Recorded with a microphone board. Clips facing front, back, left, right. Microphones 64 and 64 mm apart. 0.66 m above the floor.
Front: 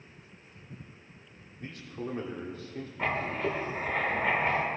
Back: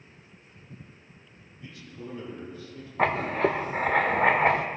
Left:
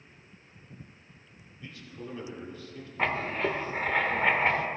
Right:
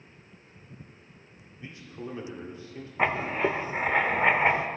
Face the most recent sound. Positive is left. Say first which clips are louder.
# back 7 dB, right 3 dB
turn(degrees=-165)